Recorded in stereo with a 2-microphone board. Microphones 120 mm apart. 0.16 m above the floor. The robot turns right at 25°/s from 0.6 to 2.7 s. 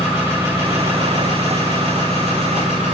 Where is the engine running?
155° right, 8 m; by 3.0 s 105° right, 8 m.